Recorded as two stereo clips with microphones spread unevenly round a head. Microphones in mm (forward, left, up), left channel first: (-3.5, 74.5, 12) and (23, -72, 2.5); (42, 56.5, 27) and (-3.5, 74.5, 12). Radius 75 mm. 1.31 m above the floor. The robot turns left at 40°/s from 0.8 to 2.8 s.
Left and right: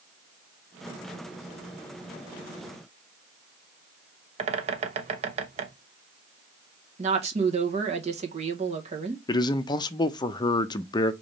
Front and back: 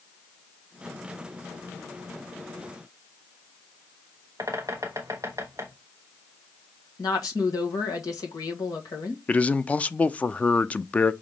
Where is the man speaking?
50° left, 0.6 m.